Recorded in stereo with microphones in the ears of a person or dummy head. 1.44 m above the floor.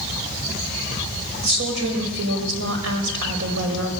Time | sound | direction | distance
1.4 | a woman speaking | 75° right (ahead or behind) | 5.5 m